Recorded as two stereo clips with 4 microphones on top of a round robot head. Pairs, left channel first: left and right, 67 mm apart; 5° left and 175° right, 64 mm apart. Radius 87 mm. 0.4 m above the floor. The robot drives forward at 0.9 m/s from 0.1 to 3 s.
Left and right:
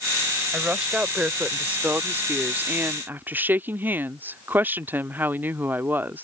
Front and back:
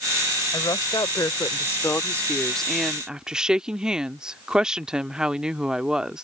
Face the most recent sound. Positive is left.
turn(degrees=-105)